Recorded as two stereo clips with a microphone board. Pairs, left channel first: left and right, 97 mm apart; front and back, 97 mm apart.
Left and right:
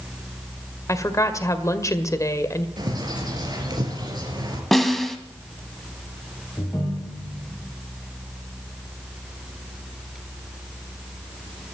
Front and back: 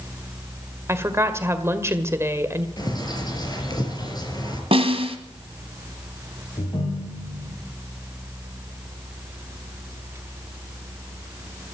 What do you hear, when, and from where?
0.9 s a woman speaking: 130° left, 1.6 m
2.8 s a bird: 45° right, 3.5 m
4.7 s a snare drum: 175° left, 1.7 m
6.6 s a ringtone: 25° left, 5.5 m